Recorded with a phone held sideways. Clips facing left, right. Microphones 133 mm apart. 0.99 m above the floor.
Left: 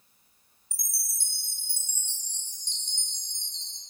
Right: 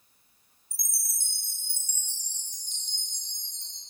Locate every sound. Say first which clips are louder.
0.7 s a chime: even; 30° left (ahead or behind), 7 m